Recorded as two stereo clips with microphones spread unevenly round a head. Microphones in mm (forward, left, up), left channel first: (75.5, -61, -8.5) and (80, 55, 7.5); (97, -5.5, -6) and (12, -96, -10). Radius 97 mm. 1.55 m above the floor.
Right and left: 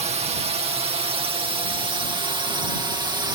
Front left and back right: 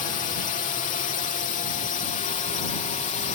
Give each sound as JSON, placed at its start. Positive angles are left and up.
{"t": 0.0, "sound": "a drone", "azimuth_deg": 65}